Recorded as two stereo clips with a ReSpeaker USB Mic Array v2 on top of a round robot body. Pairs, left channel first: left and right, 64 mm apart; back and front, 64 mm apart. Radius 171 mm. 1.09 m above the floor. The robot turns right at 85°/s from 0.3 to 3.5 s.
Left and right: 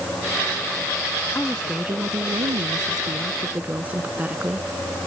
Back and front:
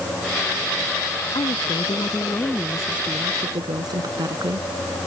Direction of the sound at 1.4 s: 155° left.